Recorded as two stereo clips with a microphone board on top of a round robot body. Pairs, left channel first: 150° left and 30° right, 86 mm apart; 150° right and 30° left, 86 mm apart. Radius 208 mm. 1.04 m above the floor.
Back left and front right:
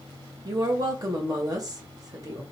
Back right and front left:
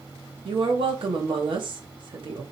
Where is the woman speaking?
15° left, 1.3 m.